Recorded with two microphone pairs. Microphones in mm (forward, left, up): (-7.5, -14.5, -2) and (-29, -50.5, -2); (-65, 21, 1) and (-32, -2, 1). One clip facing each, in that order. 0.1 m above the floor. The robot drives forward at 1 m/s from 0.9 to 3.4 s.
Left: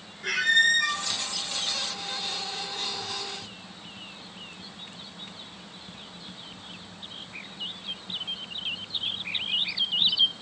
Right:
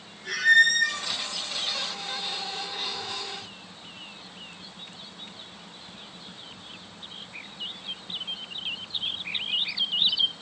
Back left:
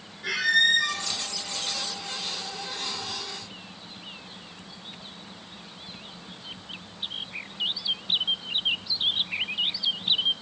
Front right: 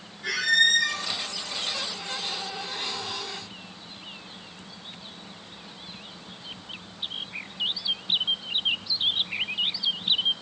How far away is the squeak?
About 5 m.